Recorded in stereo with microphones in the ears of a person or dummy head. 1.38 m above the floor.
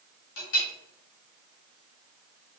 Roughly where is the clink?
Left.